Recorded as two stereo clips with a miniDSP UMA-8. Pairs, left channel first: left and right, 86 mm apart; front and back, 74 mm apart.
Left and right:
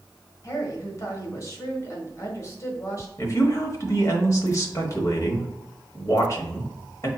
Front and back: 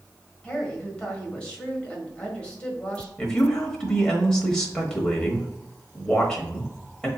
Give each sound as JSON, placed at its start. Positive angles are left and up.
{"t": 0.4, "sound": "a woman speaking", "azimuth_deg": 70, "distance_m": 1.4}
{"t": 3.2, "sound": "a woman speaking", "azimuth_deg": 75, "distance_m": 1.1}